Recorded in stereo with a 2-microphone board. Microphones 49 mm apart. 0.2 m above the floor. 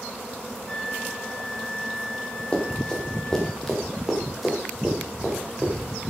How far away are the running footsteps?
About 4.5 m.